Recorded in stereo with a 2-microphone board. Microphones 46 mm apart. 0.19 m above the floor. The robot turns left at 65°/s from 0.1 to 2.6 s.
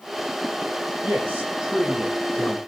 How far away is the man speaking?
About 8 m.